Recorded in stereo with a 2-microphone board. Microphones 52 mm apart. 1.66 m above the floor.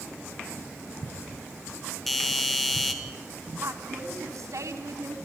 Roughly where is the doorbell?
Centre.